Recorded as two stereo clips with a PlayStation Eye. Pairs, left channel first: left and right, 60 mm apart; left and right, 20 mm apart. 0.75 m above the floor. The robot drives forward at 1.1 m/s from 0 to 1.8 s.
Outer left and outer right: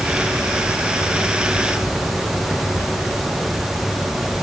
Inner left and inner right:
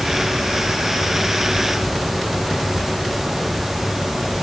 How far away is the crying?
I don't hear crying.